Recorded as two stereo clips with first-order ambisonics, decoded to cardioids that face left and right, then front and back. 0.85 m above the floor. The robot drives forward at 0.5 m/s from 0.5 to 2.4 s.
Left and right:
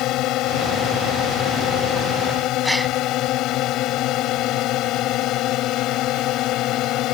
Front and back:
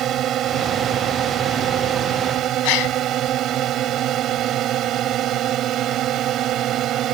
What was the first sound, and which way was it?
A drone, 125° left.